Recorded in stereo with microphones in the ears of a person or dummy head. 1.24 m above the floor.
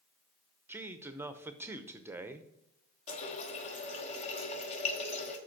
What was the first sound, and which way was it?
A man speaking, 10° right (ahead or behind).